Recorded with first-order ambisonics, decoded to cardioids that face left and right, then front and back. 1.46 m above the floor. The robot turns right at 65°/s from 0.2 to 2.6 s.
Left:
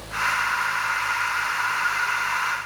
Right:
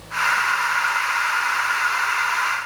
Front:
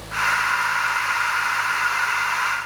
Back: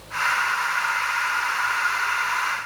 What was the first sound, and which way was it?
Only background noise.